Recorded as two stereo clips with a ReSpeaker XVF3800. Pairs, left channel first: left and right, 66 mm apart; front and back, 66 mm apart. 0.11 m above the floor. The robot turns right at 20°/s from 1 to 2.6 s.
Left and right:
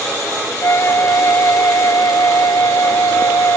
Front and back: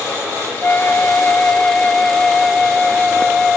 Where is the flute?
55° left, 0.6 m; by 3.6 s 85° left, 0.6 m.